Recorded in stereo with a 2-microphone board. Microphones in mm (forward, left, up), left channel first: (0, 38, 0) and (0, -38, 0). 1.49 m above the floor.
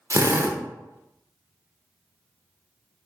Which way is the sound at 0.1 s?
40° right (ahead or behind).